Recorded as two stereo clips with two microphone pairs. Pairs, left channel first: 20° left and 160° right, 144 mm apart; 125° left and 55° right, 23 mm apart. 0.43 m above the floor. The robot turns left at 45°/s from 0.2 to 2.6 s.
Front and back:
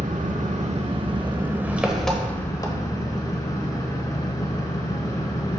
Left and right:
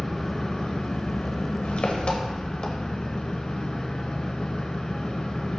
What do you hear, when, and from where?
0.0 s an engine running: 170° right, 0.9 m; by 5.6 s 80° left, 0.9 m